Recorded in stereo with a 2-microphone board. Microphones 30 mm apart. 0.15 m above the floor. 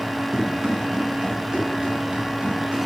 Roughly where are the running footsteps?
Centre.